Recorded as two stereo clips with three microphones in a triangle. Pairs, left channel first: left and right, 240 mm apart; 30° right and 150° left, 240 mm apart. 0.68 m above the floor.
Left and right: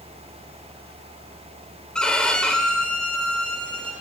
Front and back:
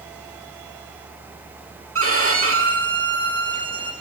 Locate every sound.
1.9 s a violin: 175° left, 1.4 m